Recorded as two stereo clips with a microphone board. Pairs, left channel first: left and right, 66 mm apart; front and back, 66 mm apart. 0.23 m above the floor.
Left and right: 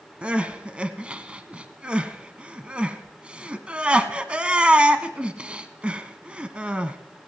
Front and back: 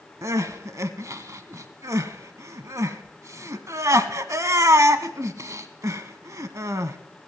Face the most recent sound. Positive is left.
turn(degrees=-160)